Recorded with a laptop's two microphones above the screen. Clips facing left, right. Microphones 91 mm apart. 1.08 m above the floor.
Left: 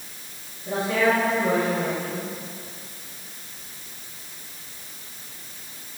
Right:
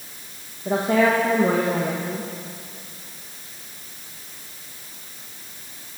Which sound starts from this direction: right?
A woman speaking, at 0.7 s.